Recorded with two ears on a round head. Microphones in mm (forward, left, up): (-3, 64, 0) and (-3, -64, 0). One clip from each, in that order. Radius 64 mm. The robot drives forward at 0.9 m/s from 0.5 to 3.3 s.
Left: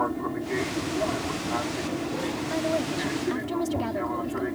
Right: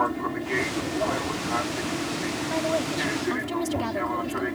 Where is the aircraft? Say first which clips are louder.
Right 2 dB; 45° right (ahead or behind); by 4.6 s 50° right (ahead or behind).